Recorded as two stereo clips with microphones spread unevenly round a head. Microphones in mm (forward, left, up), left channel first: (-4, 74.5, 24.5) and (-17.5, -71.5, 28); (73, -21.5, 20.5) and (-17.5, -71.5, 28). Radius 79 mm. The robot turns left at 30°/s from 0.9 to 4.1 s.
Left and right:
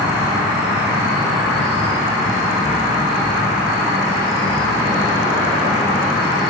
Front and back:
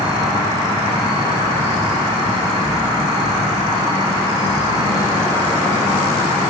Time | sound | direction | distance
0.0 | an insect | 170° right | 1.3 m